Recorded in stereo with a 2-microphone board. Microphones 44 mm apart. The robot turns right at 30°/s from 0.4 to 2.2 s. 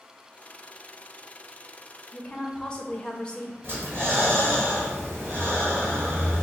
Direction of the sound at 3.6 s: 55° right (ahead or behind).